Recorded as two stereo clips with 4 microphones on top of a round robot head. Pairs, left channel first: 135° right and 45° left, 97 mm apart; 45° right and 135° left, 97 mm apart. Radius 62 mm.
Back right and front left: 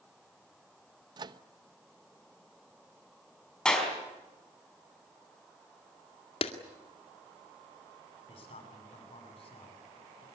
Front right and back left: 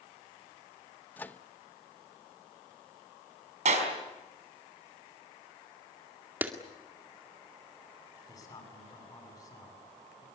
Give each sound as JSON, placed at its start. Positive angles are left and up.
{"t": 1.2, "sound": "a microwave", "azimuth_deg": 20, "distance_m": 1.0}
{"t": 3.6, "sound": "a clap", "azimuth_deg": 145, "distance_m": 5.0}
{"t": 6.4, "sound": "a clap", "azimuth_deg": -155, "distance_m": 2.0}
{"t": 8.3, "sound": "a man speaking", "azimuth_deg": -100, "distance_m": 8.0}